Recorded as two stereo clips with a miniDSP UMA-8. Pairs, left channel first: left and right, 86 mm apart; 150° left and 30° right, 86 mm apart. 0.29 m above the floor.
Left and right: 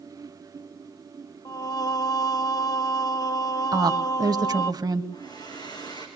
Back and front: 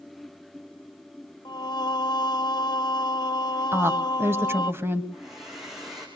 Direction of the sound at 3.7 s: 80° right.